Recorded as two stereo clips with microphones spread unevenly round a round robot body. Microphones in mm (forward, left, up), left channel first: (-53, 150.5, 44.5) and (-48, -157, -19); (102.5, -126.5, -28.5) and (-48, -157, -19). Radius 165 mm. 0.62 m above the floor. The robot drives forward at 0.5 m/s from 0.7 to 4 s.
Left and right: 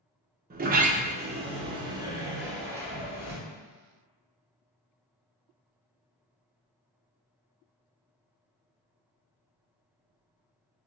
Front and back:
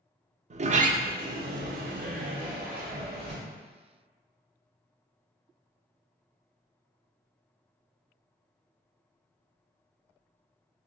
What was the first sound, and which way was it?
A sliding door, 135° right.